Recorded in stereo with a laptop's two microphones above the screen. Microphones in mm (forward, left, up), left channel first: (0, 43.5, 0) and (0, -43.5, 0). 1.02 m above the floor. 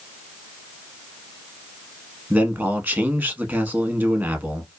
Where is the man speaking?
20° right (ahead or behind), 1.0 m.